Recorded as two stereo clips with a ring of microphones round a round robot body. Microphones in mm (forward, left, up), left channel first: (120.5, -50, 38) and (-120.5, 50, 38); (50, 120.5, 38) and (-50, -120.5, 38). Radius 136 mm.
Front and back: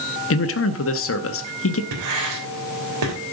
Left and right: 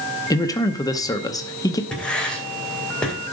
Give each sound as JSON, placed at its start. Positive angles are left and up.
{"t": 0.3, "sound": "a man speaking", "azimuth_deg": -5, "distance_m": 0.8}
{"t": 1.9, "sound": "writing", "azimuth_deg": 155, "distance_m": 2.5}